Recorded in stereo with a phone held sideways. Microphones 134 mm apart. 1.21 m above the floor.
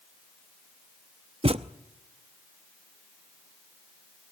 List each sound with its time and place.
1.4 s a thud: 45° right (ahead or behind), 0.7 m